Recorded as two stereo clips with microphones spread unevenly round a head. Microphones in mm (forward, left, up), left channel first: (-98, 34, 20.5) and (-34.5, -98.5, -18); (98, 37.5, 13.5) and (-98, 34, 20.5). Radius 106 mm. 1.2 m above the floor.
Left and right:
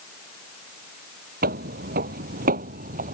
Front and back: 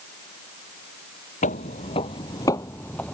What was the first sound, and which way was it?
Footsteps, 45° right.